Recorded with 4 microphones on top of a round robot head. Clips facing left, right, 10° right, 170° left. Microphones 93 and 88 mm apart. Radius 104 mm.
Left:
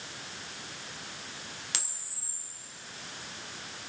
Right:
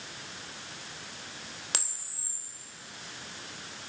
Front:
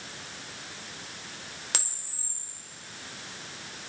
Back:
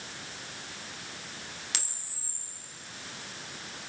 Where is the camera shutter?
50° right, 2.5 m.